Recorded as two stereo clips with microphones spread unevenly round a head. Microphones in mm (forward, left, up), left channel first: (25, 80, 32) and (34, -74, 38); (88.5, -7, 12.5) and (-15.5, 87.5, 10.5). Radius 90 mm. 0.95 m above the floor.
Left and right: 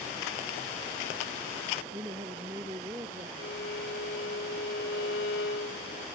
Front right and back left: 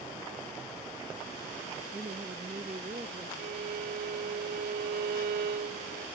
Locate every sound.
1.9 s a woman speaking: 160° right
3.4 s a violin: 120° left